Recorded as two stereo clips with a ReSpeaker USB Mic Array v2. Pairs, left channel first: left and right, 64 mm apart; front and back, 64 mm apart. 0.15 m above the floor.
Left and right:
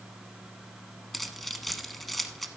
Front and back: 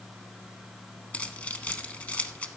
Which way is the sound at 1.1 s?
10° left.